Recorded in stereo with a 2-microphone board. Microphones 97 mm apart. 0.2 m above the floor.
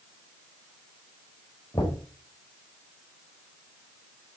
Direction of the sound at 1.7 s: 50° left (ahead or behind).